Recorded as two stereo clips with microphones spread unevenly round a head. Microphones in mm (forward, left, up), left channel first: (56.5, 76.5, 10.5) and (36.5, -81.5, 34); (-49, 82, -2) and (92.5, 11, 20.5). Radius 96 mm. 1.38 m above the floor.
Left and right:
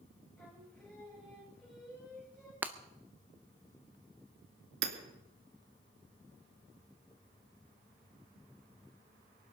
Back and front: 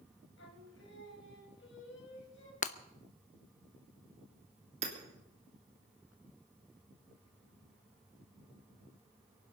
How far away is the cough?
I don't hear a cough.